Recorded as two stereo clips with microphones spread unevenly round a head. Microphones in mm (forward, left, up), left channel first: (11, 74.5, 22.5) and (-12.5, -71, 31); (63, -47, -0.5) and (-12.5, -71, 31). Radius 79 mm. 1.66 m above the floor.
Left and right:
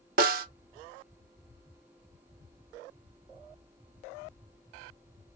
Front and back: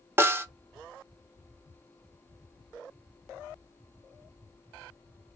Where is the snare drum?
120° right, 0.6 m.